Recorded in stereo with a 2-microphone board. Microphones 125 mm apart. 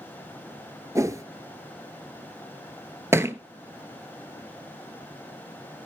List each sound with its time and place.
0.9 s a whoosh: 25° right (ahead or behind), 0.6 m
3.1 s a thud: 20° right (ahead or behind), 0.6 m